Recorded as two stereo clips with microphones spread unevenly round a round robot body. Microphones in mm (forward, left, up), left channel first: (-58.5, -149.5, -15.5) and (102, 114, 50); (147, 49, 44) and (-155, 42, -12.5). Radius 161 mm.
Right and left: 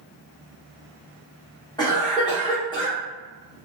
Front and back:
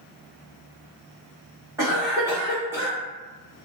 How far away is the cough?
About 1.0 m.